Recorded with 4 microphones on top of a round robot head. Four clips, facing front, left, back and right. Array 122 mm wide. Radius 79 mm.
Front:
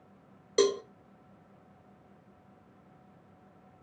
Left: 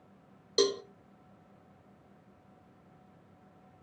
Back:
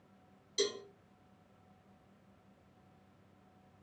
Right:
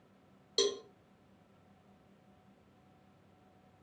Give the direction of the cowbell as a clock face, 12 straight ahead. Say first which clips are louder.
Left 5 dB, front 11 dB; 11 o'clock.